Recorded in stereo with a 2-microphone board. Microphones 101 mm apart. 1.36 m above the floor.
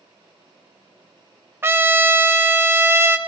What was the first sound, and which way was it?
A trumpet, 25° right (ahead or behind).